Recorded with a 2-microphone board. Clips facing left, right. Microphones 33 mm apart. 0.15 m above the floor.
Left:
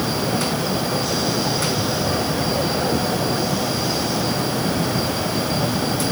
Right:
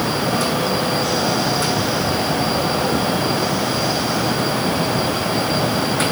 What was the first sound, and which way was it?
Only background noise.